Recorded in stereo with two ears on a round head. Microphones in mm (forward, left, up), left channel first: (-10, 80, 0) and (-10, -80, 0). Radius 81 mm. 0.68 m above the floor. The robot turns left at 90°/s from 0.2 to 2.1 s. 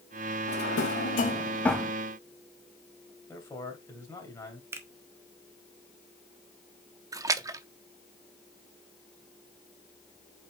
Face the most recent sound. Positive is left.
turn(degrees=-20)  # may be behind; listen again after turning